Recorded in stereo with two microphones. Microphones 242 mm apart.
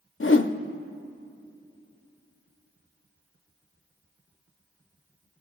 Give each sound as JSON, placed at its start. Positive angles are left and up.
{"t": 0.2, "sound": "a whoosh", "side_deg": 55, "distance_m": 0.5}